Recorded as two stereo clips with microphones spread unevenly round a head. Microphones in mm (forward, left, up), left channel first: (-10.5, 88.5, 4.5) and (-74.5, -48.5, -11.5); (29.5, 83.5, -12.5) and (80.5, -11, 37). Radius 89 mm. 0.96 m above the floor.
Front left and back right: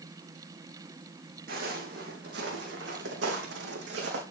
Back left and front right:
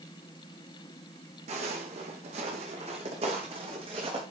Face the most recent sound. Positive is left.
turn(degrees=-115)